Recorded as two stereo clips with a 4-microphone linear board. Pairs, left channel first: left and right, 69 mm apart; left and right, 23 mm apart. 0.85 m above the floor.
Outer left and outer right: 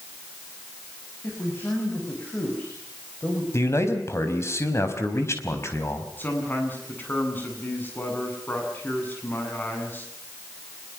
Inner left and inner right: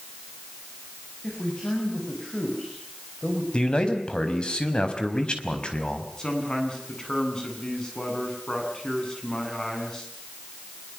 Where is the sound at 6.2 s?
25° left (ahead or behind), 8.5 m.